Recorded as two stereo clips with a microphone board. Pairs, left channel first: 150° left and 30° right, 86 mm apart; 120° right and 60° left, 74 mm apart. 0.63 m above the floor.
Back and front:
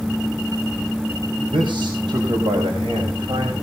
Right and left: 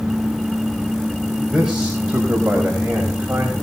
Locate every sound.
1.4 s a man speaking: 30° right, 4 m; by 3.5 s 10° right, 4.5 m